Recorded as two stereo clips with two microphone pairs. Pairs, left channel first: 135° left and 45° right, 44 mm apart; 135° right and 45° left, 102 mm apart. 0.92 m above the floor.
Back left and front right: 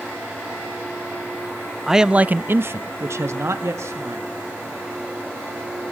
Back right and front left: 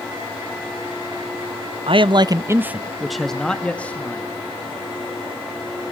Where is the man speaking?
40° left, 0.6 m; by 4.3 s 60° right, 1.6 m.